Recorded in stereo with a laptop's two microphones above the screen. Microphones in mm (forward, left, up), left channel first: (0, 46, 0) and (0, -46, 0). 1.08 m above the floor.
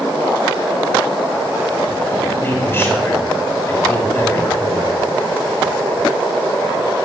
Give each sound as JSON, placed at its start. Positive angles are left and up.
{"t": 2.4, "sound": "a man speaking", "side_deg": 25, "distance_m": 3.5}